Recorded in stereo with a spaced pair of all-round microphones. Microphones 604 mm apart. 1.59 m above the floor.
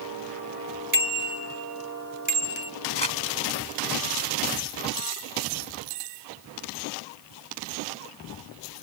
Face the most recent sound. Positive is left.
turn(degrees=45)  # may be behind; listen again after turning